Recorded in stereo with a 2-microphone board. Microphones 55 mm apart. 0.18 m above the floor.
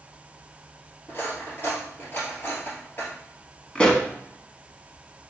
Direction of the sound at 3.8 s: 20° left (ahead or behind).